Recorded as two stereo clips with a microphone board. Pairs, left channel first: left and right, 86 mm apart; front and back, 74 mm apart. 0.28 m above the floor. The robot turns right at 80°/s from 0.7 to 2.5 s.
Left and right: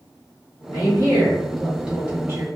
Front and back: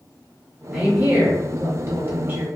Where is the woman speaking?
90° left, 1.6 m; by 2.5 s 130° right, 1.6 m.